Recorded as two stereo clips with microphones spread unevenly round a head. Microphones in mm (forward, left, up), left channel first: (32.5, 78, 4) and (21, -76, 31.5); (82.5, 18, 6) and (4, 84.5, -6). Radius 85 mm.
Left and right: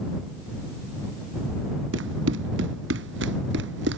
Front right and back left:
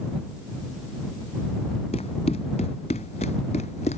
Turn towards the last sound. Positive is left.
turn(degrees=-90)